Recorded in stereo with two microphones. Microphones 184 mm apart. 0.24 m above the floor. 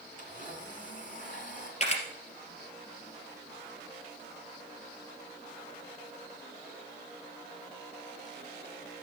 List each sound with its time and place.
0.2 s a blender: 45° left (ahead or behind), 2.5 m
1.8 s a camera shutter: 40° left (ahead or behind), 2.5 m